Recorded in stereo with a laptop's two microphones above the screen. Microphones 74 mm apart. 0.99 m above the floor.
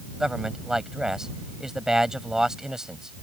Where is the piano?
No piano in this recording.